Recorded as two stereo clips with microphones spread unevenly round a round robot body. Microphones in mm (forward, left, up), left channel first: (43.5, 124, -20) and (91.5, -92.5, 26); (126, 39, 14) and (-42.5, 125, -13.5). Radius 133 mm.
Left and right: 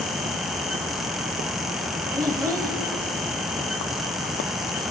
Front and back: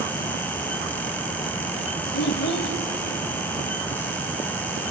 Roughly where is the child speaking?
Ahead.